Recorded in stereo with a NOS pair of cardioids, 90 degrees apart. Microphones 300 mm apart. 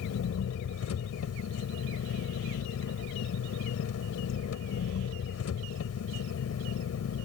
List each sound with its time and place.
0.0 s an engine running: 55° left